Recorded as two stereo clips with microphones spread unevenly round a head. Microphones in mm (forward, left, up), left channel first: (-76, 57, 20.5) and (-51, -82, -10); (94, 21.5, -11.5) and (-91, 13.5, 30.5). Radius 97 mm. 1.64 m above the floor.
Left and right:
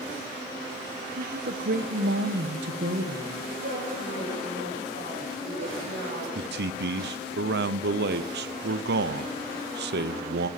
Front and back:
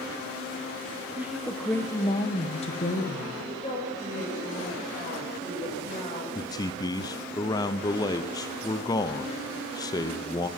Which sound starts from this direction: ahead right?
A woman speaking, at 3.4 s.